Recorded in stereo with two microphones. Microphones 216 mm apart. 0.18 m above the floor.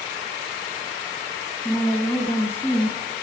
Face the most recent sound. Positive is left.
turn(degrees=10)  # may be behind; listen again after turning